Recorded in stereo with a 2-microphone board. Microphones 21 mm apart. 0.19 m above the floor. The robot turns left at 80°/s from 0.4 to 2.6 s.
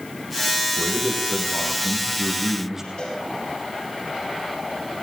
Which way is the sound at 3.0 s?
65° left (ahead or behind).